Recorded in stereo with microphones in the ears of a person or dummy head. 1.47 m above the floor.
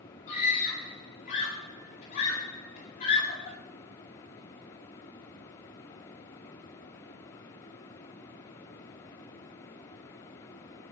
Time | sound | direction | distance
0.3 | a scream | 40° left (ahead or behind) | 9 m